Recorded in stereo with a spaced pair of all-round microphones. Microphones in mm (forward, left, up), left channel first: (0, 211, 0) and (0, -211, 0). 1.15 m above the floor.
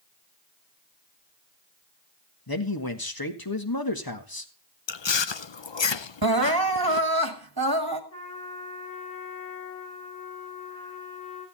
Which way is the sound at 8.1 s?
30° left (ahead or behind).